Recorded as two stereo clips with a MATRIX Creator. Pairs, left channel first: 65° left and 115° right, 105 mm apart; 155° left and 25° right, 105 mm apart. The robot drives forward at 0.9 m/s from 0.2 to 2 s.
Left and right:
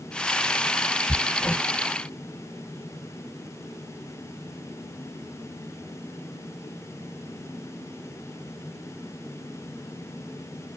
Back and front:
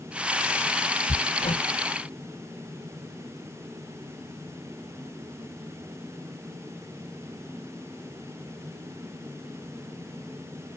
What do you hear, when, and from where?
1.1 s hammering: 145° left